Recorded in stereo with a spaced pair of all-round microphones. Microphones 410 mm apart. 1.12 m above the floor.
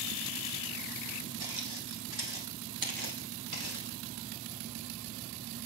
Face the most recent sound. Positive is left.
turn(degrees=-35)  # may be behind; listen again after turning